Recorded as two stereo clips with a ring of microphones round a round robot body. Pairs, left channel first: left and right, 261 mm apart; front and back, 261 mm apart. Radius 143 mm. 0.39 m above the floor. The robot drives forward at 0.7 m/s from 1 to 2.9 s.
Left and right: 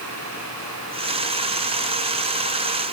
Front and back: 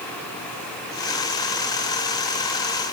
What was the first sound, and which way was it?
Only background noise.